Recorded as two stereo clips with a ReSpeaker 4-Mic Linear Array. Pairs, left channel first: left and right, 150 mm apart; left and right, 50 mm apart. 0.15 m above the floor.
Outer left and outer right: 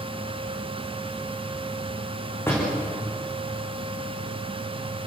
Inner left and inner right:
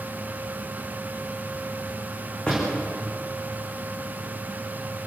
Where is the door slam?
15° left (ahead or behind), 10 m.